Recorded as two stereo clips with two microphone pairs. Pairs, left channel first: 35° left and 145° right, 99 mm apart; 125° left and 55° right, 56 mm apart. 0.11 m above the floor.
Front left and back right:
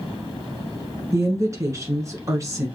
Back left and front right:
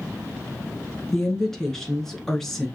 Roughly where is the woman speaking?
Behind.